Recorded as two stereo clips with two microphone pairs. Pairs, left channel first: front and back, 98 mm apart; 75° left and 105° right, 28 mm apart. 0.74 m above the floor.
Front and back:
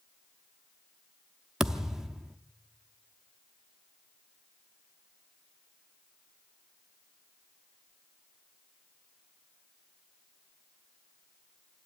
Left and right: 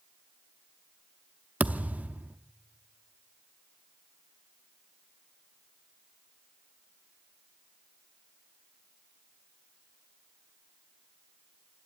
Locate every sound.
1.6 s a thud: 95° right, 0.6 m